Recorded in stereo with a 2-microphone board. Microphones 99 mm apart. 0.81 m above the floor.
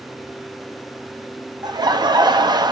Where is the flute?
No flute in this recording.